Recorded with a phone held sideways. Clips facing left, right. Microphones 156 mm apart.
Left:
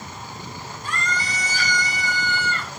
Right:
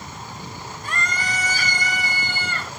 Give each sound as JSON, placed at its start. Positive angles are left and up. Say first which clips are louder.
{"t": 0.8, "sound": "a scream", "louder": "even", "side_deg": -60, "distance_m": 5.5}